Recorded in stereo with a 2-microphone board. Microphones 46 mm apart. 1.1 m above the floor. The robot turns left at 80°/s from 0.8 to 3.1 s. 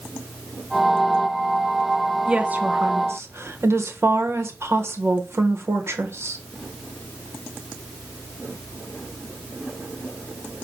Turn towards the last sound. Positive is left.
turn(degrees=-85)